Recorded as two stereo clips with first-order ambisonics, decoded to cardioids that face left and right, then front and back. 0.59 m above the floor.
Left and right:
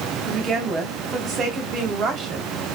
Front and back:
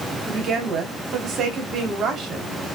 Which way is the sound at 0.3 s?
140° right.